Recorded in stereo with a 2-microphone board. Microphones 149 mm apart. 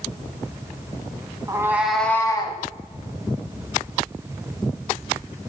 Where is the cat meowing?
25° right (ahead or behind), 1.1 m; by 2.6 s 35° left (ahead or behind), 1.1 m.